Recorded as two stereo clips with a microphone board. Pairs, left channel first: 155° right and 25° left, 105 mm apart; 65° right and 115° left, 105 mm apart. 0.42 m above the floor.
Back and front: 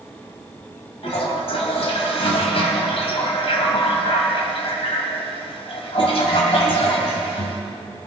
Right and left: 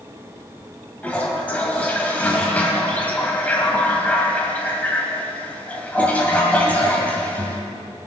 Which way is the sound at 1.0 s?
145° right.